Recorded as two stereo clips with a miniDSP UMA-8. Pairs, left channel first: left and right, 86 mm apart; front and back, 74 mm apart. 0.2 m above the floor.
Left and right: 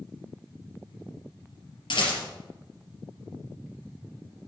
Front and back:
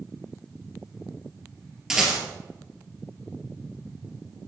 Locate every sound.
1.9 s a rattle: 95° left, 3.5 m